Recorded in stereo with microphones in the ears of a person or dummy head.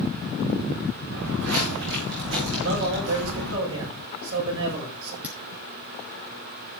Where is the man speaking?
80° right, 7 m.